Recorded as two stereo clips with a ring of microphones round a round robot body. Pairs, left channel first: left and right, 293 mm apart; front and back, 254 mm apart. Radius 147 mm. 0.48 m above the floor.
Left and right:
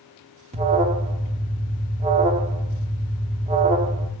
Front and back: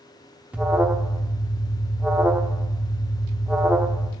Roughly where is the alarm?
Right.